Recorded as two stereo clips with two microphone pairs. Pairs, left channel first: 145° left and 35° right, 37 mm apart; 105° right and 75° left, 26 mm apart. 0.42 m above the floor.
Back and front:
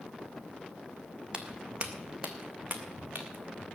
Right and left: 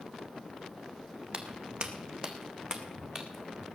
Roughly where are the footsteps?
Ahead left.